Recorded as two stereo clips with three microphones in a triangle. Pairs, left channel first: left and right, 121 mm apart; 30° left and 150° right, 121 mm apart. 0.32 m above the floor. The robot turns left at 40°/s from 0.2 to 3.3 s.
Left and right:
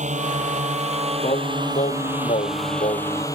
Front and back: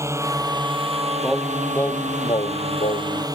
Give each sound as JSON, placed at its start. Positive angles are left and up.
{"t": 0.0, "sound": "a drone", "azimuth_deg": -85}
{"t": 1.2, "sound": "singing", "azimuth_deg": 125}